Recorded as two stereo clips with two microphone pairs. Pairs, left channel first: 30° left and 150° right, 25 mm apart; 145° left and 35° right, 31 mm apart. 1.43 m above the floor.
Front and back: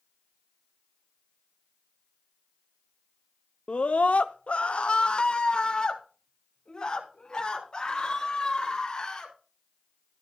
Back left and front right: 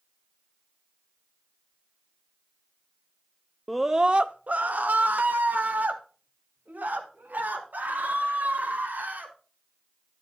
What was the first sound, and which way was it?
A scream, 65° left.